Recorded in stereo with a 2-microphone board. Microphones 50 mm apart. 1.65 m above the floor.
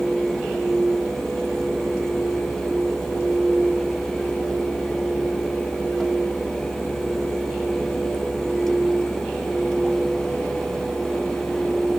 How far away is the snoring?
I don't hear snoring.